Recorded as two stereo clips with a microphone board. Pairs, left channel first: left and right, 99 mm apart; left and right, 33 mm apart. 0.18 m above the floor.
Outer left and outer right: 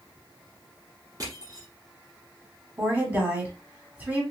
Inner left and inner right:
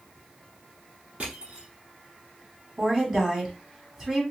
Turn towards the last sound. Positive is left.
turn(degrees=-20)  # may be behind; listen again after turning